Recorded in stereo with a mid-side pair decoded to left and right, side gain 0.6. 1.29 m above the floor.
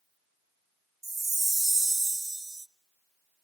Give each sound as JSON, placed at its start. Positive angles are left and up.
{"t": 1.0, "sound": "a chime", "azimuth_deg": -20, "distance_m": 0.8}